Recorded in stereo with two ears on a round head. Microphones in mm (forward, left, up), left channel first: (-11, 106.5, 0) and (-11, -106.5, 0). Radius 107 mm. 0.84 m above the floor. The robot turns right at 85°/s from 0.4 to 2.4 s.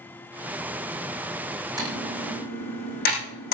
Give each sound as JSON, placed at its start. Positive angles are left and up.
{"t": 1.8, "sound": "typing on a keyboard", "side_deg": -15, "distance_m": 9.0}